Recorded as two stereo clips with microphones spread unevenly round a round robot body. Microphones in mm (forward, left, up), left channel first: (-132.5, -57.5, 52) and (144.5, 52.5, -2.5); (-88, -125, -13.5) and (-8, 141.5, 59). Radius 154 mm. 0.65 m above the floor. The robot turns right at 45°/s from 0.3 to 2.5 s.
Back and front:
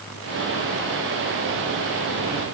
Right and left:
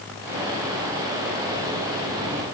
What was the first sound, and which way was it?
Only background noise.